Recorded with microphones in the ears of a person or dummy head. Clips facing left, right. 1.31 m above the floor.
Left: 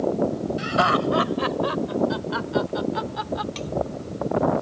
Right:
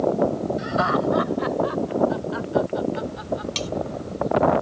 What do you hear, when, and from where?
0.6 s laughter: 45° left (ahead or behind); by 3.5 s 70° left (ahead or behind)
3.5 s cutlery clinking: 45° right (ahead or behind)